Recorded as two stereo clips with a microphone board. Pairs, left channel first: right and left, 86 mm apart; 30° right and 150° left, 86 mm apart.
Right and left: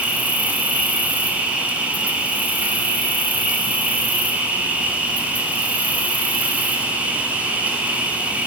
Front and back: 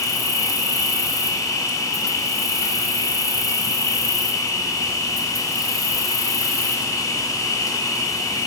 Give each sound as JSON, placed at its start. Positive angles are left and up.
{"t": 0.0, "sound": "an insect", "azimuth_deg": 15, "distance_m": 1.4}